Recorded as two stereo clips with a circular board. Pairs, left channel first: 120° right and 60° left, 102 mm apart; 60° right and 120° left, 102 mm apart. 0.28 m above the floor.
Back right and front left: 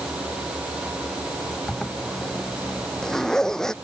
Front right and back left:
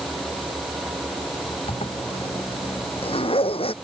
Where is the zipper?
35° right.